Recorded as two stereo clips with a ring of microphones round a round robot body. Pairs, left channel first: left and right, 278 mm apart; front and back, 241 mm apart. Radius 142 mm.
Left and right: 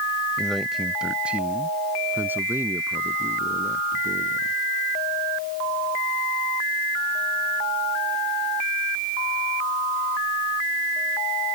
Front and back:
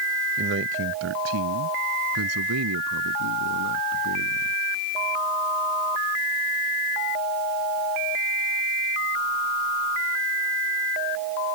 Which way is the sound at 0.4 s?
175° left.